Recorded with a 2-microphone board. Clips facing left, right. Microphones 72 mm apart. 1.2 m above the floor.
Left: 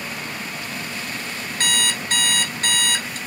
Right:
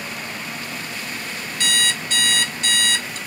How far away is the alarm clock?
About 0.9 m.